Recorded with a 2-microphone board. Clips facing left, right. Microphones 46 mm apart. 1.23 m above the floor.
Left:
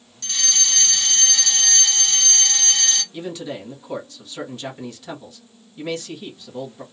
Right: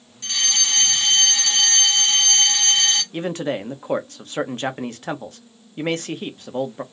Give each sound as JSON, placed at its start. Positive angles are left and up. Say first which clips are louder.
{"t": 0.2, "sound": "a fire alarm", "louder": "right 3 dB", "side_deg": -25, "distance_m": 1.2}
{"t": 3.1, "sound": "a man speaking", "louder": "right 5 dB", "side_deg": -50, "distance_m": 0.7}